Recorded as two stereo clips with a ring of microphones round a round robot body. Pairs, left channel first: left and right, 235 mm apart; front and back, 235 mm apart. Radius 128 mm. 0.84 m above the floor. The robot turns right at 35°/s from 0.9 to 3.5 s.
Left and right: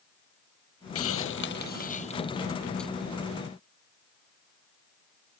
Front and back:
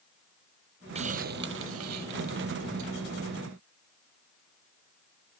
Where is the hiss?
110° left; by 2.9 s straight behind.